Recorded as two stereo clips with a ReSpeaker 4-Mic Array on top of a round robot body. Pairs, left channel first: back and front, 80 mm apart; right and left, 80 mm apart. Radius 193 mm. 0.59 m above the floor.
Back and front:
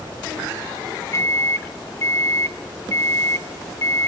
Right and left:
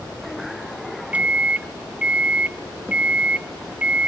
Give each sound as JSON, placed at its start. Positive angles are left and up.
{"t": 1.1, "sound": "a microwave", "azimuth_deg": 155, "distance_m": 0.9}